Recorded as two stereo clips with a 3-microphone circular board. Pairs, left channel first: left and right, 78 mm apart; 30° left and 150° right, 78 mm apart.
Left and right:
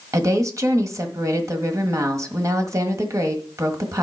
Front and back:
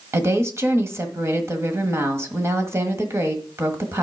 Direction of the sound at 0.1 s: 110° right.